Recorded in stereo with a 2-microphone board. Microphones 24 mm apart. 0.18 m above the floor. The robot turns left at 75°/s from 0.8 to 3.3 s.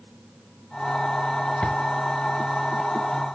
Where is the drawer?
65° left (ahead or behind), 1.0 m; by 1.8 s 55° left (ahead or behind), 1.0 m.